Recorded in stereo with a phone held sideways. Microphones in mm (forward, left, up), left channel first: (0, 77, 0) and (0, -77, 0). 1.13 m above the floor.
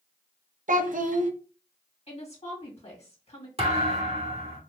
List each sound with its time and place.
0.7 s a child speaking: 60° right (ahead or behind), 0.6 m
2.1 s a woman speaking: 40° left (ahead or behind), 1.9 m
3.6 s a thud: 40° right (ahead or behind), 1.5 m